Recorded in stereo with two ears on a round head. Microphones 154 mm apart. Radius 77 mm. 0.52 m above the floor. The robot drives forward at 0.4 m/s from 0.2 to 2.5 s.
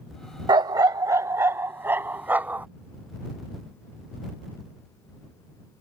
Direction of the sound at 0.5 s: 25° right (ahead or behind).